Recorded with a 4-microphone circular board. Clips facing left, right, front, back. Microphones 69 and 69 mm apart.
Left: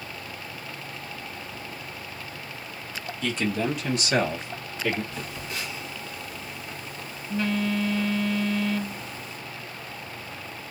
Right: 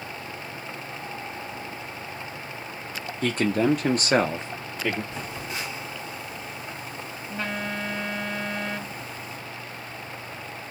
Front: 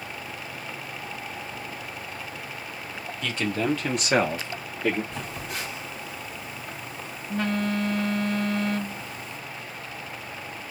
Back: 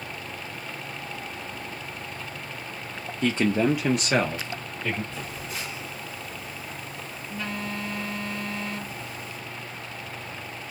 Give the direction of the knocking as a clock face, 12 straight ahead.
No knocking in this recording.